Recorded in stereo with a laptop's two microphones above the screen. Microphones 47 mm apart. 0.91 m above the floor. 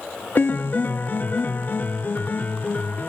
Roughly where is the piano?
Left.